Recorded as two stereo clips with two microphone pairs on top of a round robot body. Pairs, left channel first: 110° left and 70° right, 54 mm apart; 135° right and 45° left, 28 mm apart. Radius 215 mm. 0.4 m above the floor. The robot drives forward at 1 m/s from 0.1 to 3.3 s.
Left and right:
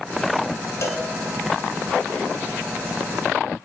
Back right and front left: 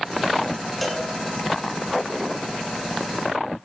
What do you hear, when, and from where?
0.8 s a cowbell: 135° left, 1.7 m; by 1.0 s 140° left, 1.9 m